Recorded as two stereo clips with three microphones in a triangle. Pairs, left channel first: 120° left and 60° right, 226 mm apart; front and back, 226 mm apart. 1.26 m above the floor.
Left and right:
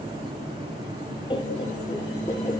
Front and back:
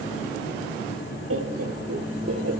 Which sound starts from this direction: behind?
Laughter, at 1.3 s.